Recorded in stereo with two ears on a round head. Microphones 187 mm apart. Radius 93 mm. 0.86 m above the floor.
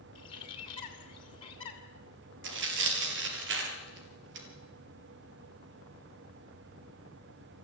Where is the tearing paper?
60° right (ahead or behind), 3 m.